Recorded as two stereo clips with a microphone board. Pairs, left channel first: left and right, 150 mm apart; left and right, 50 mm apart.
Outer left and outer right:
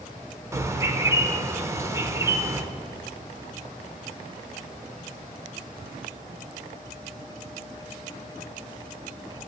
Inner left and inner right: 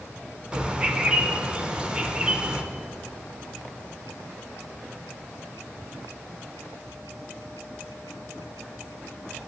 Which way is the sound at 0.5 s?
20° right (ahead or behind).